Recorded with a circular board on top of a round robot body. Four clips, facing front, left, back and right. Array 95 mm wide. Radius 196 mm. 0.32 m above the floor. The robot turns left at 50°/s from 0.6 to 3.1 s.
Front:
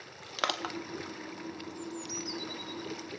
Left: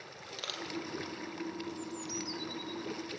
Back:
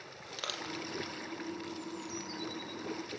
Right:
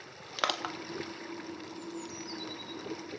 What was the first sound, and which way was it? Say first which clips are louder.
Crushing: right 10 dB, front 8 dB; 50° right.